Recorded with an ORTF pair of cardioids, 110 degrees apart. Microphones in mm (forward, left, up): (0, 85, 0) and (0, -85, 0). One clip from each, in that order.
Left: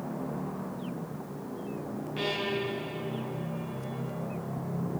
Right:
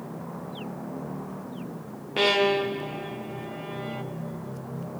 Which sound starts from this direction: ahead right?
A violin, at 2.2 s.